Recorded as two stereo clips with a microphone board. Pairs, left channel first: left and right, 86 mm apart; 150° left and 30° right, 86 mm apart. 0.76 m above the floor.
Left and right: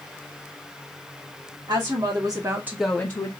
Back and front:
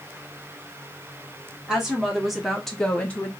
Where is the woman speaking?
110° right, 1.9 m; by 3.3 s 85° left, 0.9 m.